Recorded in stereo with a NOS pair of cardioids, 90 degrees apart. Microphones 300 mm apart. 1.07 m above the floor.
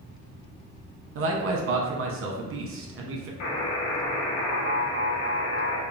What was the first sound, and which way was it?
A man speaking, 45° right.